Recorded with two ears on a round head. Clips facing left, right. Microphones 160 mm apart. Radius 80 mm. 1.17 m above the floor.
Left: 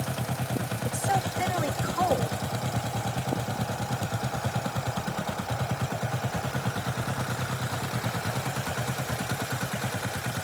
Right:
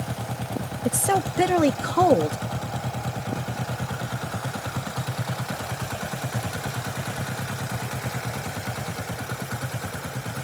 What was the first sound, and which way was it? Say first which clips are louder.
A woman speaking: right 6 dB; 70° right (ahead or behind).